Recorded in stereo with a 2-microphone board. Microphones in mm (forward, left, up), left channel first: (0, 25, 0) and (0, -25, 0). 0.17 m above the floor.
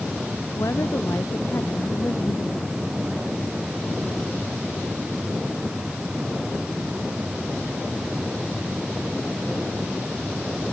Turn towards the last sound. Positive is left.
turn(degrees=75)  # may be behind; listen again after turning